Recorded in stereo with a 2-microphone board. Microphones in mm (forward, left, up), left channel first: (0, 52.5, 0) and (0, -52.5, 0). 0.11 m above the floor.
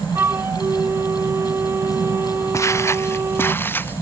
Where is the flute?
25° right (ahead or behind).